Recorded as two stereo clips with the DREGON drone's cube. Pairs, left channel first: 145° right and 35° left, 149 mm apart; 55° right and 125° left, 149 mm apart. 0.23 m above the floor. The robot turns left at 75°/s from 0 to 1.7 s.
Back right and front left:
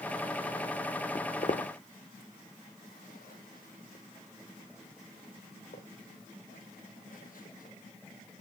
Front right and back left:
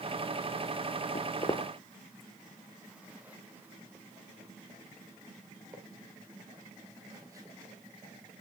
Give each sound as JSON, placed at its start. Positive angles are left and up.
{"t": 1.1, "sound": "footsteps", "azimuth_deg": -75, "distance_m": 0.7}